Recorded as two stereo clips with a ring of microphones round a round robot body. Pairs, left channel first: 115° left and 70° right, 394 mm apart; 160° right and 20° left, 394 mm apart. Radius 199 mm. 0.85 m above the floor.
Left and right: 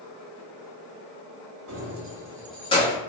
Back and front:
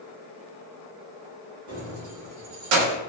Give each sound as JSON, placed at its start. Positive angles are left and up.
{"t": 1.7, "sound": "keys jangling", "azimuth_deg": -10, "distance_m": 1.1}